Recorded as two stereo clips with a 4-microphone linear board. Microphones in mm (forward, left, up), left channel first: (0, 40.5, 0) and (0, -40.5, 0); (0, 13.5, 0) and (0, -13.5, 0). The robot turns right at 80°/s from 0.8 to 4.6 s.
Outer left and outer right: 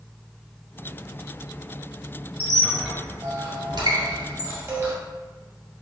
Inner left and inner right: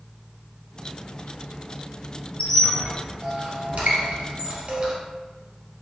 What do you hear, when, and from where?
2.4 s a squeak: 30° left (ahead or behind), 1.6 m; by 4.9 s 30° right (ahead or behind), 1.6 m